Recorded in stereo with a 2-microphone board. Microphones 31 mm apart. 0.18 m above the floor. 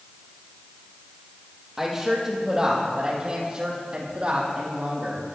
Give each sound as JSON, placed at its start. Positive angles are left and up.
{"t": 1.8, "sound": "a woman speaking", "side_deg": -10, "distance_m": 5.0}